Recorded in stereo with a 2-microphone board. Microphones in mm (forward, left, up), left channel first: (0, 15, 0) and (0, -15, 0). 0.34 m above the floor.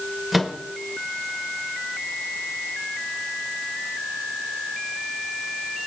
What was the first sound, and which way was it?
A microwave, centre (ahead or behind).